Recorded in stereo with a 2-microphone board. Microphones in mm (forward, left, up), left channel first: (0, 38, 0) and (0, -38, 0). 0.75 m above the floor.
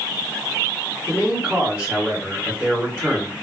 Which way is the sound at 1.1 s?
20° right (ahead or behind).